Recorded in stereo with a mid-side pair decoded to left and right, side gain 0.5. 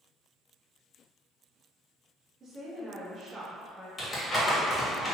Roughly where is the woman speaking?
Ahead right.